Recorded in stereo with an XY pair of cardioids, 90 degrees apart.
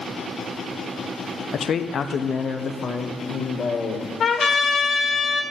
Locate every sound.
1.5 s a man speaking: 65° left, 0.7 m; by 4.1 s 60° left, 2.5 m
4.2 s a trumpet: 60° left, 2 m